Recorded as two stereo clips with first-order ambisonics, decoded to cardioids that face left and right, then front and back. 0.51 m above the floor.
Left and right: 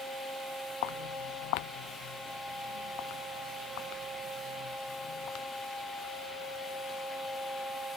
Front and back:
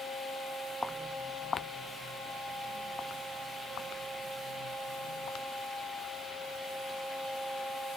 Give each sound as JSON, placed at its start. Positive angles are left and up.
{"t": 0.8, "sound": "footsteps", "azimuth_deg": 85}